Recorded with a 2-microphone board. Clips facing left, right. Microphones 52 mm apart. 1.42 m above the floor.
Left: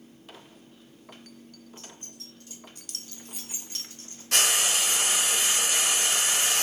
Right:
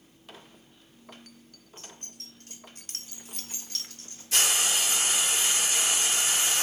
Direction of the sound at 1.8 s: 45° right (ahead or behind).